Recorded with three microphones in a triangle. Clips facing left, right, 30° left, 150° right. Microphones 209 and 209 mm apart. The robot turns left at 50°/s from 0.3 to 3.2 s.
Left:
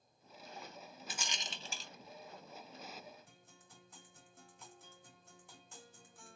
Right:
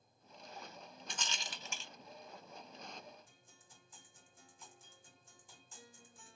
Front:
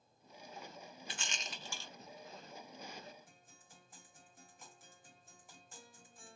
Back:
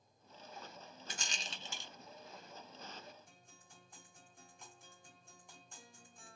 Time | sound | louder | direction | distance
1.1 | a rattle | even, even | 175° left | 0.5 m
3.3 | a guitar | left 4 dB, even | 115° left | 1.6 m